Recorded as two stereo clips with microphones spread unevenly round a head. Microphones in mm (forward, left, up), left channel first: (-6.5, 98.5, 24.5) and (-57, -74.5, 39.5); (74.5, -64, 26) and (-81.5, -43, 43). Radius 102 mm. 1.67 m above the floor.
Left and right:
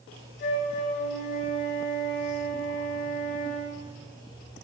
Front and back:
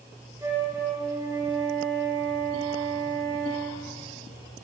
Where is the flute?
95° left, 4.5 m.